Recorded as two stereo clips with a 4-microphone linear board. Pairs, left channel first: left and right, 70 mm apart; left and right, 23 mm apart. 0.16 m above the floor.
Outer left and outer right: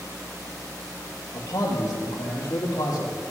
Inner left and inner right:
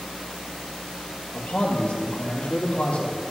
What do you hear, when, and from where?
1.3 s a man speaking: 65° left (ahead or behind), 2.5 m; by 3.1 s 60° left (ahead or behind), 4.5 m